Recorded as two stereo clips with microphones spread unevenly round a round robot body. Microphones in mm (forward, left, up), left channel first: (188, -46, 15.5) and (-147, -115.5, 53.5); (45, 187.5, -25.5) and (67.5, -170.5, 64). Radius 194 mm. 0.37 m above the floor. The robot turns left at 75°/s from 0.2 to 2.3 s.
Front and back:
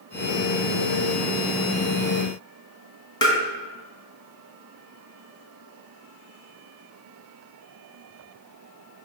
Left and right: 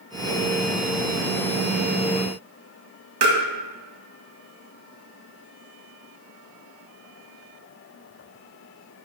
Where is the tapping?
65° right, 1.9 m.